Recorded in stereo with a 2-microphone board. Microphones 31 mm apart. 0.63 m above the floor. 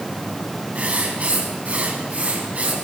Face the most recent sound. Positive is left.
turn(degrees=-45)  # may be behind; listen again after turning